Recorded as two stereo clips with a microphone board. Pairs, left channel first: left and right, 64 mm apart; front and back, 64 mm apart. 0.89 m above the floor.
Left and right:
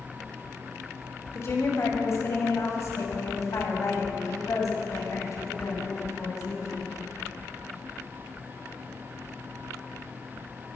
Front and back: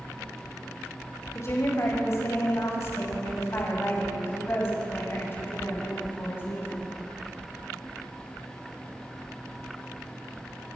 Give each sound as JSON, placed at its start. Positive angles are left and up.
{"t": 1.4, "sound": "a woman speaking", "azimuth_deg": 45, "distance_m": 5.0}